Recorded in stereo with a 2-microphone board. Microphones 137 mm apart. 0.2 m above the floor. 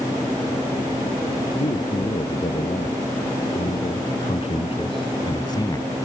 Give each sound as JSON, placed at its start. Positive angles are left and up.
{"t": 1.6, "sound": "a man speaking", "side_deg": 60}